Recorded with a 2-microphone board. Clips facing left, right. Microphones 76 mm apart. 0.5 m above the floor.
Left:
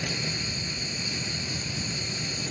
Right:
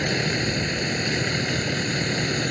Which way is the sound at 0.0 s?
70° right (ahead or behind).